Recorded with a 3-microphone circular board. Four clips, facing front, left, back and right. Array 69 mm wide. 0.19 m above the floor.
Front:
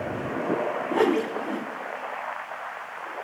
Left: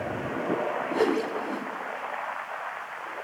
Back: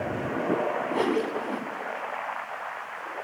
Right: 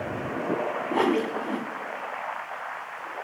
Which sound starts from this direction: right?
A whoosh, at 0.9 s.